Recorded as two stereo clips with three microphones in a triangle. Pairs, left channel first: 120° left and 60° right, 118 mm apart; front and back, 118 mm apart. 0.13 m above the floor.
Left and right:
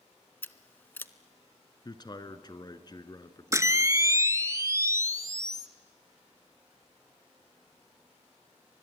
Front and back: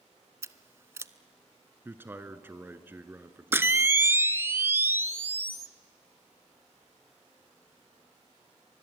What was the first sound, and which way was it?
Scissors, 165° left.